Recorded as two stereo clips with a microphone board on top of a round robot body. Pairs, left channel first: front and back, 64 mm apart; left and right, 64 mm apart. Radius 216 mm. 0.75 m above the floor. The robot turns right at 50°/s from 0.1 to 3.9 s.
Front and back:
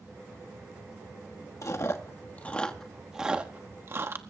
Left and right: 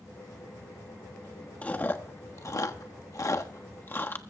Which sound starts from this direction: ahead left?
Chewing, at 1.6 s.